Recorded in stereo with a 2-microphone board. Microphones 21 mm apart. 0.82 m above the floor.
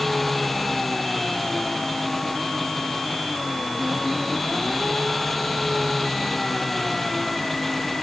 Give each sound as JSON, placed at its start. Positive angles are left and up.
{"t": 0.0, "sound": "an engine running", "side_deg": 5}